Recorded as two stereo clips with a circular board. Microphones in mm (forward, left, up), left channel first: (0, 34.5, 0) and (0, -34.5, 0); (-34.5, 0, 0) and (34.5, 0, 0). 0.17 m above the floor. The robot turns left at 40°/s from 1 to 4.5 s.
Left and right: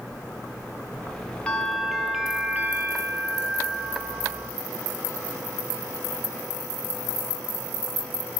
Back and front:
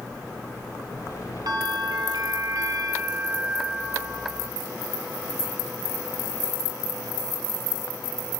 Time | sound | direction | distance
1.5 | a bell | 20° left | 2.5 m